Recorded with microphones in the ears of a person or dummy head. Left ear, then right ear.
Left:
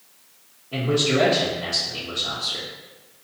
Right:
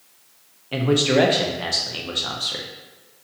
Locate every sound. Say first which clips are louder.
0.7 s a man speaking: right 3 dB; 55° right (ahead or behind), 0.7 m